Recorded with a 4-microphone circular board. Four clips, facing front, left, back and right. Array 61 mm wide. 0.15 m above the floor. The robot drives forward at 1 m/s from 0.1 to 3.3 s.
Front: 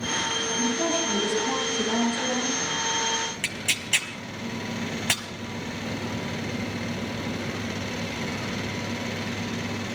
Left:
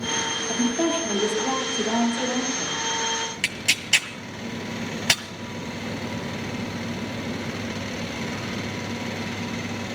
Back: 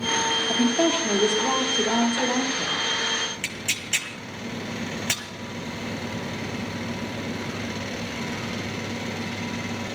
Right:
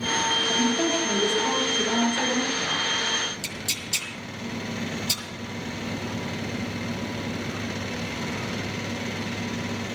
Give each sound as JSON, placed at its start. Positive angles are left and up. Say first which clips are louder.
{"t": 0.5, "sound": "a woman speaking", "louder": "even, back 5 dB", "azimuth_deg": 160, "distance_m": 4.0}
{"t": 3.4, "sound": "tearing paper", "louder": "left 7 dB, front 1 dB", "azimuth_deg": 85, "distance_m": 1.5}